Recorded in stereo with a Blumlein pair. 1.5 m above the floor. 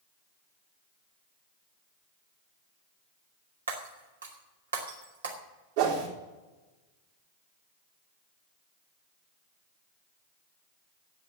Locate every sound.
3.7 s breaking glass: 70° right, 2 m
5.8 s a whoosh: 55° right, 3.5 m